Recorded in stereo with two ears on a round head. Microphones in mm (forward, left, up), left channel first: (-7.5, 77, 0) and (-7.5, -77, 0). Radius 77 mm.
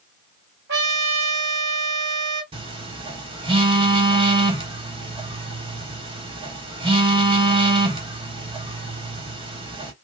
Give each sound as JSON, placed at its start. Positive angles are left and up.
{"t": 0.7, "sound": "a trumpet", "side_deg": -65, "distance_m": 2.0}
{"t": 2.5, "sound": "a phone buzzing", "side_deg": -30, "distance_m": 1.3}